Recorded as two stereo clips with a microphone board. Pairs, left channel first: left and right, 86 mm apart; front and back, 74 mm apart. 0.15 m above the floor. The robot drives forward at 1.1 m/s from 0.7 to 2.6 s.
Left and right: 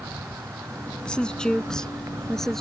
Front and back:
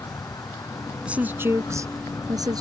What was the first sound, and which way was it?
An insect, 35° right.